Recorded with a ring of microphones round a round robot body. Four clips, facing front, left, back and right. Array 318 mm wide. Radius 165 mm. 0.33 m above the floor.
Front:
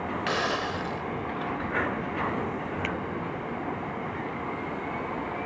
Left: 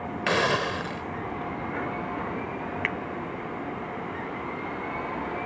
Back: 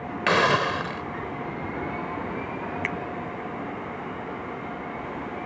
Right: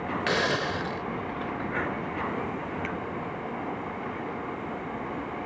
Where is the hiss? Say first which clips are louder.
Left 3 dB, back 9 dB; 165° left.